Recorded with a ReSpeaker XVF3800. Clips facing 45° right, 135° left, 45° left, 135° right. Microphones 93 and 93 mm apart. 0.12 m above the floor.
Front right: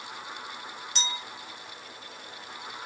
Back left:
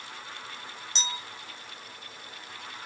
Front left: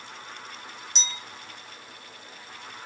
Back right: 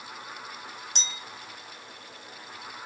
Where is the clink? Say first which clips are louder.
Front right 1 dB, front left 2 dB; 160° right, 2.5 m.